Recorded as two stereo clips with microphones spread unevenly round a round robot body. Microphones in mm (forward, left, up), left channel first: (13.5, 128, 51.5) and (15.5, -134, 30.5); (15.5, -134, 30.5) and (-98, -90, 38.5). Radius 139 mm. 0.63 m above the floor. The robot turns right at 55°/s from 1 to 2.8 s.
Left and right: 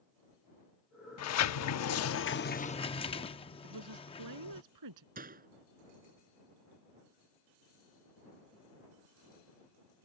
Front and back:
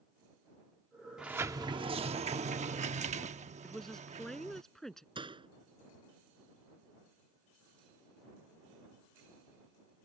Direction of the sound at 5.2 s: 150° right.